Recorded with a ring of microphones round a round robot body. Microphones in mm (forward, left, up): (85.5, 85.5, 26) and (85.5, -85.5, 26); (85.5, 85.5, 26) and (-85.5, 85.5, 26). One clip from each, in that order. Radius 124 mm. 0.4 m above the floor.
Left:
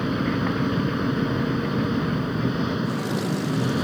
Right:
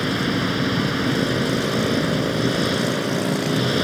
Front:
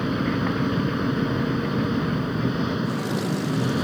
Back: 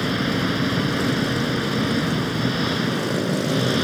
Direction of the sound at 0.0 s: 130° right.